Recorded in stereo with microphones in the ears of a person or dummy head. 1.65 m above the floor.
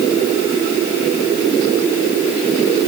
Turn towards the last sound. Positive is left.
No sound to turn to.